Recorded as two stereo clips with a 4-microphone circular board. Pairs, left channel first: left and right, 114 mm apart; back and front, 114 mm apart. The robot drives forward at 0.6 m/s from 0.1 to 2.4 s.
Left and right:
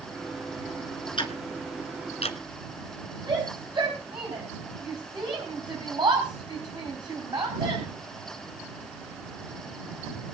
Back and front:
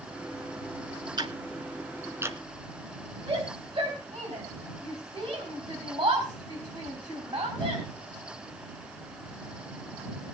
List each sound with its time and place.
1.2 s ticking: 50° left, 1.9 m; by 2.4 s 70° left, 1.5 m
3.3 s a shout: 45° right, 4.5 m